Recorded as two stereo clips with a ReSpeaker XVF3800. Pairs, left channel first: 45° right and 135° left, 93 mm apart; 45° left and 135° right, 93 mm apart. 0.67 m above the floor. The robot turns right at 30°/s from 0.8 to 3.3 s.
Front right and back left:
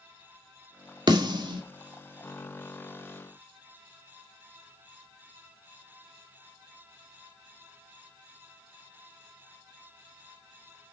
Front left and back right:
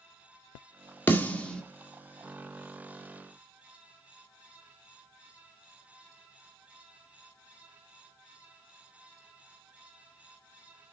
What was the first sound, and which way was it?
A snare drum, 110° left.